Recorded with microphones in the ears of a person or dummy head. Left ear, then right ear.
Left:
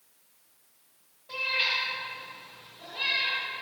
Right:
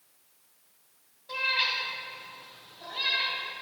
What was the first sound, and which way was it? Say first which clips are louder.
A cat meowing: even; 30° right (ahead or behind).